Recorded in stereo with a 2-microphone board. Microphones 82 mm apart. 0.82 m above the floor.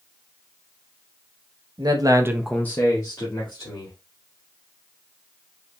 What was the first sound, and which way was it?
A man speaking, 55° right (ahead or behind).